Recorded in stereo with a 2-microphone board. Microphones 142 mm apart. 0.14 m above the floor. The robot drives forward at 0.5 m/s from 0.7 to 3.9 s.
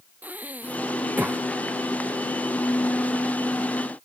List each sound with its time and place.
0.2 s breathing: 10° right (ahead or behind)